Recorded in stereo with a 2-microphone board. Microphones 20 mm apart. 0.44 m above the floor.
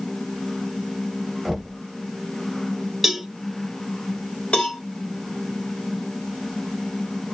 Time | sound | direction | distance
1.4 | knocking | 25° right (ahead or behind) | 0.9 m
3.0 | a cowbell | 10° right (ahead or behind) | 0.7 m
4.5 | a cowbell | 50° left (ahead or behind) | 1.3 m